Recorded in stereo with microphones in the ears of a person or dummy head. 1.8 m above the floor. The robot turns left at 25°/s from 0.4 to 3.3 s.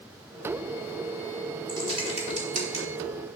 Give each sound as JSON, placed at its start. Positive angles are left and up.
{"t": 1.7, "sound": "typing on a keyboard", "side_deg": -25, "distance_m": 3.0}